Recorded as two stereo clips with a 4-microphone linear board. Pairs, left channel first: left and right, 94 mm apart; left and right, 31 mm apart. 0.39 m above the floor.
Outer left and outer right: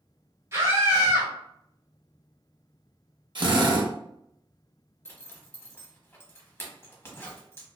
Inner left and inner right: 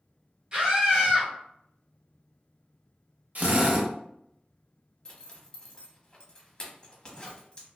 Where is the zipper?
25° left (ahead or behind), 0.7 m.